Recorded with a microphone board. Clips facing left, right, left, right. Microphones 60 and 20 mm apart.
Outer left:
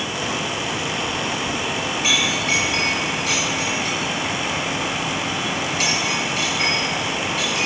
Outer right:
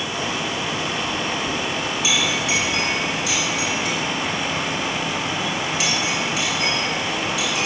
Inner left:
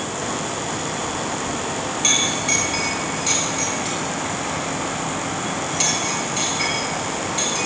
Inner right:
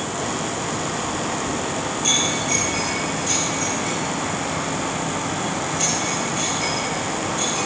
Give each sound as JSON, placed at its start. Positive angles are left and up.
{"t": 2.0, "sound": "a clink", "side_deg": 55, "distance_m": 5.0}